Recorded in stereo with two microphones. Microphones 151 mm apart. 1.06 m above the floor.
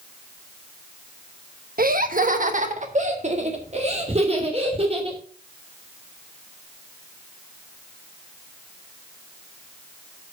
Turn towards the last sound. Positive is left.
turn(degrees=-40)  # may be behind; listen again after turning